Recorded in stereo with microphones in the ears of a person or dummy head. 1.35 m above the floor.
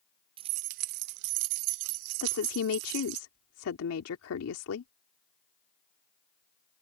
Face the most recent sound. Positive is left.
turn(degrees=85)